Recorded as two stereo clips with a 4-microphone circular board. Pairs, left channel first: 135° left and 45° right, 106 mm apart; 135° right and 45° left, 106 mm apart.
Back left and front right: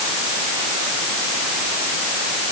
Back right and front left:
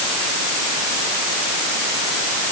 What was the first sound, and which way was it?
Only background noise.